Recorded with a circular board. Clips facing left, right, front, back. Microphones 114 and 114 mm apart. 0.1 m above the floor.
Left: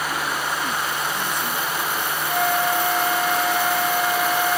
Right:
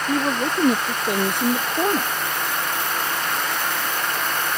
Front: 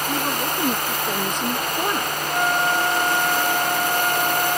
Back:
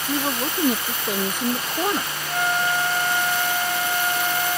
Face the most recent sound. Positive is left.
turn(degrees=85)